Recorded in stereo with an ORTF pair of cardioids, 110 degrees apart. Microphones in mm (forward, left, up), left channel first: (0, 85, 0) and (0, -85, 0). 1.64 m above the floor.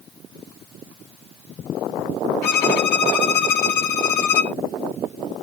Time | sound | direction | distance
2.4 | a violin | 70° left | 1.0 m